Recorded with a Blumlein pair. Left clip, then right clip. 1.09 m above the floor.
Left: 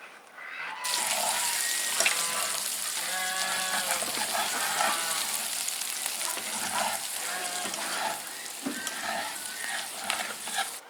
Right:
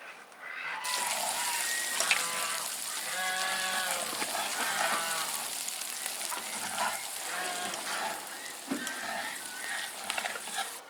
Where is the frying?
15° left.